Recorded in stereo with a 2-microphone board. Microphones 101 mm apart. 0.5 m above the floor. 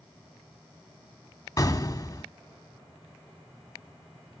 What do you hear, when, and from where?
1.6 s an explosion: 35° left (ahead or behind), 1.0 m